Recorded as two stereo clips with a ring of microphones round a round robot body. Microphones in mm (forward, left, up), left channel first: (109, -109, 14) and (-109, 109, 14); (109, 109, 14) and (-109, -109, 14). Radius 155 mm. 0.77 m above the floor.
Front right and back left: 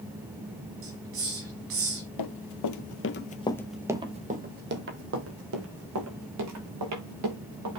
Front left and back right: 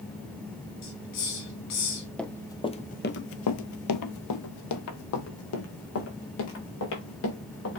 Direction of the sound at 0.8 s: 85° left.